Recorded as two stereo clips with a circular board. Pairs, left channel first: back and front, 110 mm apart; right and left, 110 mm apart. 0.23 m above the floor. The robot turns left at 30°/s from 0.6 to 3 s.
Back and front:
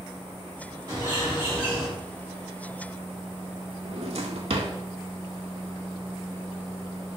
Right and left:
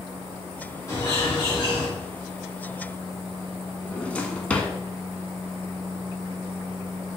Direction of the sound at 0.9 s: 45° right.